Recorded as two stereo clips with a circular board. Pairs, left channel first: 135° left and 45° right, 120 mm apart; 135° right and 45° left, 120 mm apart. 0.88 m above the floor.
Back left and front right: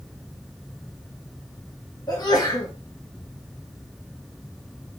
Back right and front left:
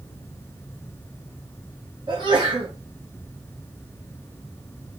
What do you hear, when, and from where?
2.1 s a sneeze: 85° left, 1.4 m